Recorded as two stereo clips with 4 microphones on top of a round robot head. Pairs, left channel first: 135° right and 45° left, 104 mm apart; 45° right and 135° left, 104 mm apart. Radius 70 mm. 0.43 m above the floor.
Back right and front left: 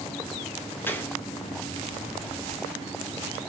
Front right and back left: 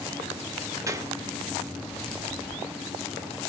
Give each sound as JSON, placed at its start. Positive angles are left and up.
{"t": 0.9, "sound": "a gunshot", "azimuth_deg": 165, "distance_m": 0.7}